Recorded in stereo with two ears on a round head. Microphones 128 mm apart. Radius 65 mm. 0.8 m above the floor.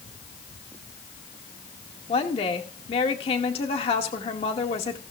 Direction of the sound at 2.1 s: 40° left (ahead or behind).